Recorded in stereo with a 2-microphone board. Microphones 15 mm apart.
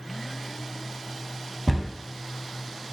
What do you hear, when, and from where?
1.7 s a cupboard door: 5° left (ahead or behind), 0.5 m